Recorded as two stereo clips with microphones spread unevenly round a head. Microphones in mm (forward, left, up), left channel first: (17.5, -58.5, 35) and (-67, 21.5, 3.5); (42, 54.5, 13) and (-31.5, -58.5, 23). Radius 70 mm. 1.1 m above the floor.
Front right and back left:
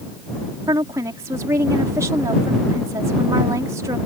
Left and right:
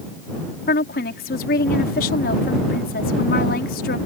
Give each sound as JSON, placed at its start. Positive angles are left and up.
{"t": 0.7, "sound": "a woman speaking", "azimuth_deg": 70}